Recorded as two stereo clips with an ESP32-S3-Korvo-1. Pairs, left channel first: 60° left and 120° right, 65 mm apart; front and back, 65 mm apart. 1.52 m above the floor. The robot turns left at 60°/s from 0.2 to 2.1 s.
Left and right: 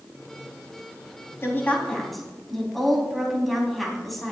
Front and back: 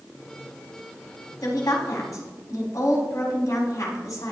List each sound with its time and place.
1.4 s a woman speaking: 15° left, 3.5 m; by 4.3 s 25° right, 3.5 m